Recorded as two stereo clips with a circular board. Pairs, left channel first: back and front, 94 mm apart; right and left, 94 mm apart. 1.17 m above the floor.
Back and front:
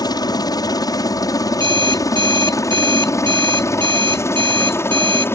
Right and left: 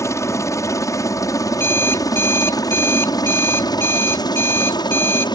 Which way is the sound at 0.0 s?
145° right.